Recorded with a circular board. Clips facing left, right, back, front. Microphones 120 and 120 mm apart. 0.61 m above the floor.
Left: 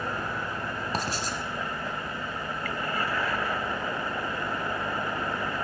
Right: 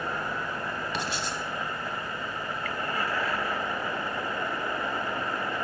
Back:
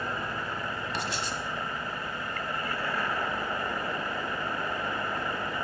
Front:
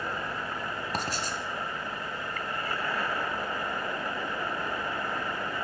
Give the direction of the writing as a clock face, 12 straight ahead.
11 o'clock.